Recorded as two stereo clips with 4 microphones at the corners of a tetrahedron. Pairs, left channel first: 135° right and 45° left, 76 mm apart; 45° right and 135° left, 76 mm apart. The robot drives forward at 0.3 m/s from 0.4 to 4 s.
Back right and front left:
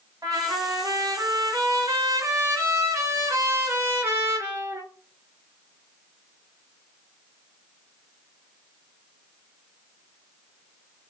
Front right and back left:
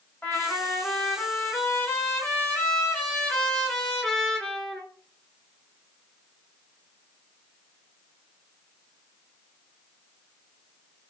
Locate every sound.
0.2 s a trumpet: 10° left, 1.8 m; by 4.8 s 35° left, 1.1 m